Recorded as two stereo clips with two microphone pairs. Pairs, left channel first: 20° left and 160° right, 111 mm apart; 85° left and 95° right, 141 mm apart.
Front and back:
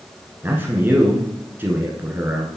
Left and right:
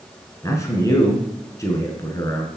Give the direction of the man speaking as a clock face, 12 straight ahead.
7 o'clock.